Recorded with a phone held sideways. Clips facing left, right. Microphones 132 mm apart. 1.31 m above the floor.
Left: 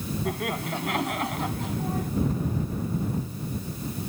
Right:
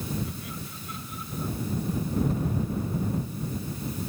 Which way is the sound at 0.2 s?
65° left (ahead or behind).